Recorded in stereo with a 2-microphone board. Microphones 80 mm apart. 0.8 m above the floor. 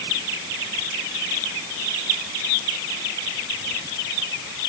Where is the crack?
No crack in this recording.